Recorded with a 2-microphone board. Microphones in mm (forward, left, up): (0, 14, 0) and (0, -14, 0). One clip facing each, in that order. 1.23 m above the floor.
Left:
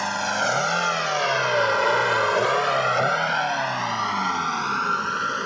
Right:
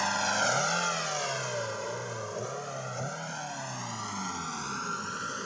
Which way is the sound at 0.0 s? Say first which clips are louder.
Left 4 dB; 10° left (ahead or behind).